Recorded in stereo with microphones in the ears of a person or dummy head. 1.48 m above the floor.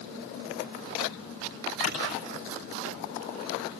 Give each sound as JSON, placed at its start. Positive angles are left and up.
{"t": 1.8, "sound": "a clap", "side_deg": 40, "distance_m": 8.5}